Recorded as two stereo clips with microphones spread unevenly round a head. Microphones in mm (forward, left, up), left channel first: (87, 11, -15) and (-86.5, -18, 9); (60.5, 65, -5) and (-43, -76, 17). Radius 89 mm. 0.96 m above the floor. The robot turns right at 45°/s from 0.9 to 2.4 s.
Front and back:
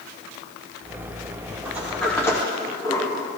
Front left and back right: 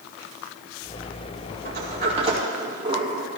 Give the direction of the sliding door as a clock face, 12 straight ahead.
3 o'clock.